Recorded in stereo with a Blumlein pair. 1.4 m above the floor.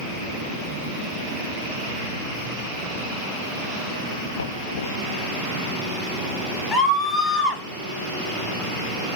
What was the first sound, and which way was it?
Knocking, 70° left.